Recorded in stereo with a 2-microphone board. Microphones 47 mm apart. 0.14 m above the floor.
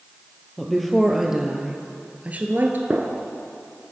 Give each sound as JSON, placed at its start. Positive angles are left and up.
{"t": 0.6, "sound": "a woman speaking", "side_deg": 10, "distance_m": 3.0}
{"t": 2.9, "sound": "a gunshot", "side_deg": -35, "distance_m": 1.7}